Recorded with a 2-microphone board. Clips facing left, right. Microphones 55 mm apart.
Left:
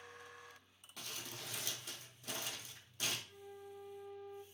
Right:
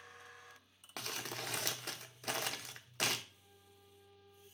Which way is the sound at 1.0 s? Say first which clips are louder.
Right 6 dB; 60° right (ahead or behind).